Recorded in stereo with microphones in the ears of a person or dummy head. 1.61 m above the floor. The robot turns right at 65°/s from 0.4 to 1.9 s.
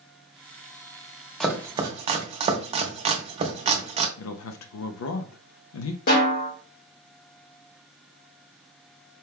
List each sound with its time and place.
1.4 s chopping: centre (ahead or behind), 0.5 m; by 4.1 s 35° right (ahead or behind), 0.5 m
4.2 s a man speaking: 70° left (ahead or behind), 0.5 m
6.1 s a snare drum: 45° left (ahead or behind), 1.5 m